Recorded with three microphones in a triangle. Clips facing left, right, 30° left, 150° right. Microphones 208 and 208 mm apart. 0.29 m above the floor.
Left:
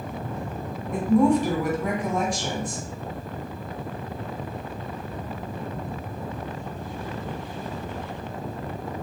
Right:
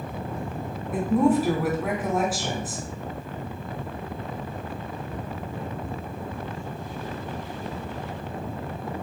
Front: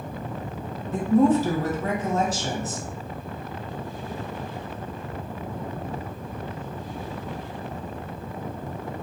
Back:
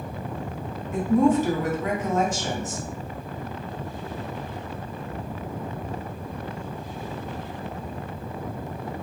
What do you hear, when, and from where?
0.9 s a woman speaking: 10° right, 1.2 m